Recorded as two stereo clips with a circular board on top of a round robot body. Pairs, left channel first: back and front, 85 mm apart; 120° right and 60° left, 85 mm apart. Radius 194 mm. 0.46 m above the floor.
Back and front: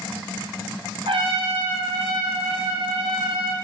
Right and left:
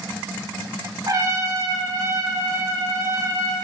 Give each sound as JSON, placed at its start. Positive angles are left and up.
{"t": 1.1, "sound": "a trumpet", "azimuth_deg": 10, "distance_m": 1.7}